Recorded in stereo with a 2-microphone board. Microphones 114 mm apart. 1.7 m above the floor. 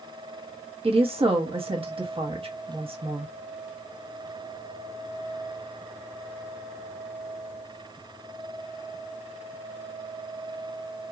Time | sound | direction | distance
0.8 | a woman speaking | 55° right (ahead or behind) | 0.9 m